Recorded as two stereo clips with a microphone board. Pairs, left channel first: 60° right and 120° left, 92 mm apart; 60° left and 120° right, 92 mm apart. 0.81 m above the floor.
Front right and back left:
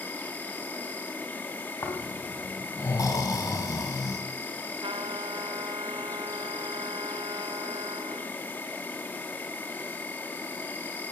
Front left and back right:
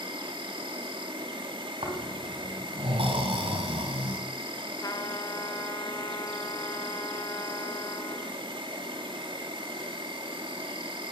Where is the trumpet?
105° left, 1.3 m.